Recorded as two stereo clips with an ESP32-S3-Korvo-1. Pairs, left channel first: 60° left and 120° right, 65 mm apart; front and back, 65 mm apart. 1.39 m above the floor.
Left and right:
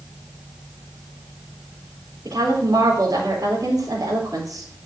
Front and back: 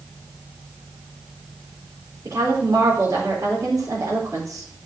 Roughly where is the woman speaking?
Behind right.